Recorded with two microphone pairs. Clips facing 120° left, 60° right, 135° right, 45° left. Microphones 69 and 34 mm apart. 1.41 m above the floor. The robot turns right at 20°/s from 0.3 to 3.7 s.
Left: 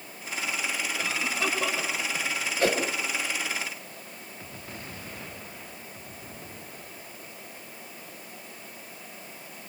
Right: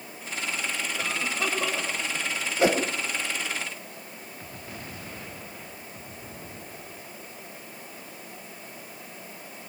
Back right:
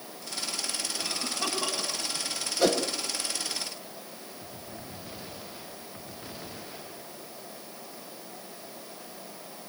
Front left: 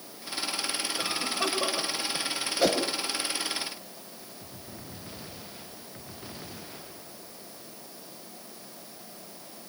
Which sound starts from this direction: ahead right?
A whoosh, at 2.6 s.